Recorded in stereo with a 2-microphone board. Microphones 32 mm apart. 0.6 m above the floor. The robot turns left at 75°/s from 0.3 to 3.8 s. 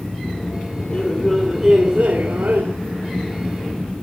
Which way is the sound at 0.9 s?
45° left.